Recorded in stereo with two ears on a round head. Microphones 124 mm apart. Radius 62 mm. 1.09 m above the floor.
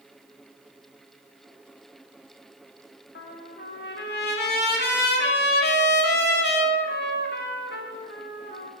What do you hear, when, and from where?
3.1 s a trumpet: 80° left, 2 m